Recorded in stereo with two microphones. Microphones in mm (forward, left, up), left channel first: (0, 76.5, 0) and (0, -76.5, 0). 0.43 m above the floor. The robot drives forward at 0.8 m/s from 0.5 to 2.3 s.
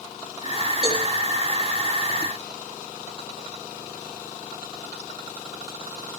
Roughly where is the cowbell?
Left.